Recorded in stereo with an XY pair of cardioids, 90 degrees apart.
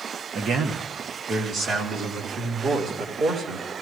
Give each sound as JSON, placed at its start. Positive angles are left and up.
{"t": 0.3, "sound": "a man speaking", "azimuth_deg": -70, "distance_m": 1.7}